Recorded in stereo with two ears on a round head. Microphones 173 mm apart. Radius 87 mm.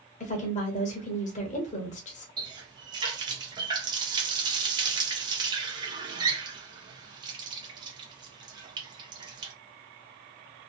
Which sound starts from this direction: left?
A woman speaking, at 0.2 s.